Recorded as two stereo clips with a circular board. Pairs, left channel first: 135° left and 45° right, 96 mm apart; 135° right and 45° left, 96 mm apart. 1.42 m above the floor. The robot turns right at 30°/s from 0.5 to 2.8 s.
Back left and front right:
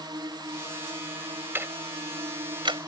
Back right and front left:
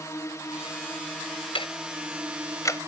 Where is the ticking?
115° right; by 2.9 s 75° right.